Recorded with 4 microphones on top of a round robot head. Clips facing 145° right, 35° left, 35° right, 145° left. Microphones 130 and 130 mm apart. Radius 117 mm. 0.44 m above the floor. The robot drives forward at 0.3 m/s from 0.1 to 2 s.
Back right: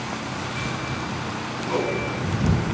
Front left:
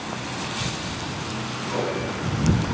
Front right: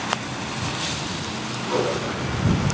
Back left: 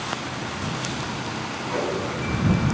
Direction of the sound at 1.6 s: 90° right.